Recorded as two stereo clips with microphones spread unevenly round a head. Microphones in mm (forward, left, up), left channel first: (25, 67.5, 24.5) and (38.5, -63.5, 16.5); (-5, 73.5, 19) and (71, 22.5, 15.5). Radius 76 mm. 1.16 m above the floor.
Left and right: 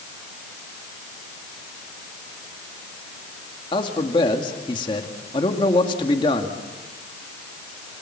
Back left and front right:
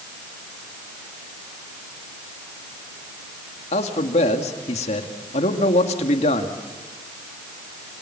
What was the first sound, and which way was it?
A man speaking, 160° left.